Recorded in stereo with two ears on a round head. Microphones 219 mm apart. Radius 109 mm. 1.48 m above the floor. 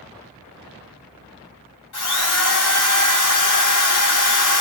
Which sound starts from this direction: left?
A drill, at 1.9 s.